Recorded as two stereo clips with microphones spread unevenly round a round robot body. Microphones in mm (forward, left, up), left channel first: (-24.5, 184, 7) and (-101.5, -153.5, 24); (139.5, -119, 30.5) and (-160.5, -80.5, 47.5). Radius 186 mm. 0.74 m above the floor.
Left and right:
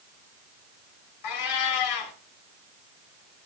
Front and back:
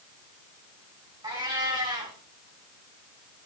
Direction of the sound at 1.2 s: 95° left.